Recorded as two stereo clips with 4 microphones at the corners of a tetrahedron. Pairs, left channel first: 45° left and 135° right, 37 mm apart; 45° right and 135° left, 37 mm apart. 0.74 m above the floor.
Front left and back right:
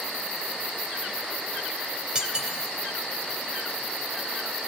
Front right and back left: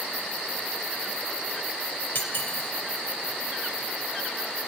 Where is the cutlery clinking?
70° right, 2 m.